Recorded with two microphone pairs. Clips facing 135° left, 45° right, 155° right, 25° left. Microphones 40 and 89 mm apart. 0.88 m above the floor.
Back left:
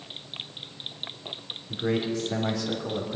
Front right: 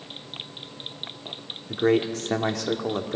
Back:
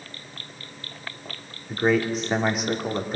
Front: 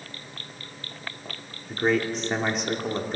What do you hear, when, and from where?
1.7 s a man speaking: 65° right, 2.5 m